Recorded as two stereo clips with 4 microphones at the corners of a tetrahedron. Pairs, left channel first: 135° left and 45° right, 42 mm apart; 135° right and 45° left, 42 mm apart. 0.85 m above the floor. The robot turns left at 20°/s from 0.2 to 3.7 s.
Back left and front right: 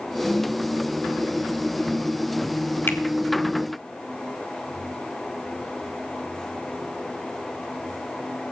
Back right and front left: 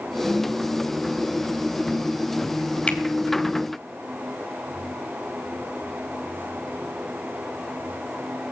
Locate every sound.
2.9 s a finger snap: 160° left, 1.5 m